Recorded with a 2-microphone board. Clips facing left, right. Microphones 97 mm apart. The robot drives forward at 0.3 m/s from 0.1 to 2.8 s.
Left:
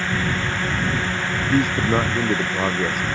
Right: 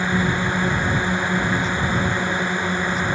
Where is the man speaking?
55° left (ahead or behind).